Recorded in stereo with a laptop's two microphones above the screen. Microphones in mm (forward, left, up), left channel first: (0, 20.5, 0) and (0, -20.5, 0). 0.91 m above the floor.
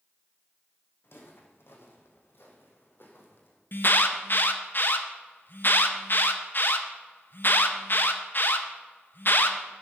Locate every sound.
1.0 s footsteps: 65° left (ahead or behind), 2.5 m; by 3.6 s 55° left (ahead or behind), 2 m
3.7 s an alarm: 50° left (ahead or behind), 0.9 m